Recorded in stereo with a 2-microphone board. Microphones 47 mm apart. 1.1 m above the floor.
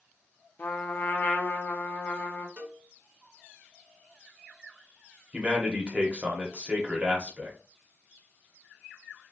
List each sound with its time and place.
0.6 s a trumpet: 45° left (ahead or behind), 0.6 m
2.6 s a cowbell: 35° right (ahead or behind), 1.3 m
5.3 s a man speaking: 25° right (ahead or behind), 0.9 m